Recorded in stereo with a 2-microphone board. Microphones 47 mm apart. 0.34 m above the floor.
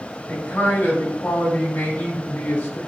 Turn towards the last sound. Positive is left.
turn(degrees=30)  # may be behind; listen again after turning